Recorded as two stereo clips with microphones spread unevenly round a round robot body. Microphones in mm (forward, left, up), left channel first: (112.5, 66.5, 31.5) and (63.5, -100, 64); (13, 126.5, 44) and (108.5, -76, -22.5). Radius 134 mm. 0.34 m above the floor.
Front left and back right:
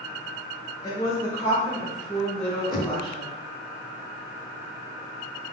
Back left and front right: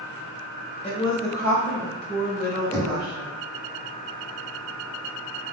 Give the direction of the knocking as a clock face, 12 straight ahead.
11 o'clock.